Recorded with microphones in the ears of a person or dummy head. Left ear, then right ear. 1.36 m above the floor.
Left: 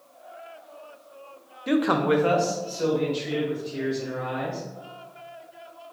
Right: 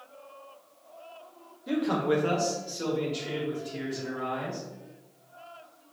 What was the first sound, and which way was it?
A man speaking, 60° left (ahead or behind).